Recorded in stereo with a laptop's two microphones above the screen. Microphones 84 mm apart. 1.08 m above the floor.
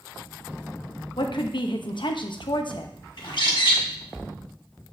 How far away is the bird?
About 1.4 m.